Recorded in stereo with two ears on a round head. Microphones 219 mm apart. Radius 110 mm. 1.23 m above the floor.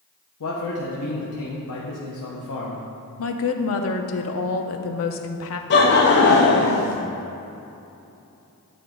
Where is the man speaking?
65° left (ahead or behind), 0.9 m.